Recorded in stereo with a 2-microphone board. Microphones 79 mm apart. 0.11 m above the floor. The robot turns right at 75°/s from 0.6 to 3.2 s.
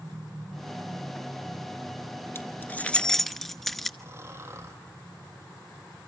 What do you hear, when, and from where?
2.4 s keys jangling: 30° left (ahead or behind), 1.0 m; by 3.9 s 5° left (ahead or behind), 1.0 m
4.0 s snoring: 35° right (ahead or behind), 4 m